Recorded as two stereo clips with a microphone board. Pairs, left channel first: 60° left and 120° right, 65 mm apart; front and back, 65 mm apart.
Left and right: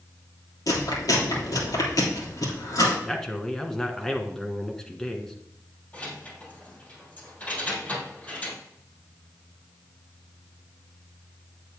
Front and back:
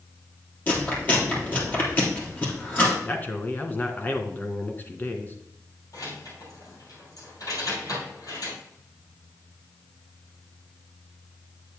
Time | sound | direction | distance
0.7 | chewing | 60° left | 3 m
3.0 | a man speaking | 15° right | 1.2 m
5.9 | keys jangling | 5° right | 3 m